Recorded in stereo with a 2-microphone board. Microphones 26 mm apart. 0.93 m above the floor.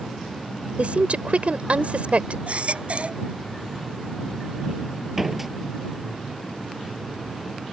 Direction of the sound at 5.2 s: 10° right (ahead or behind).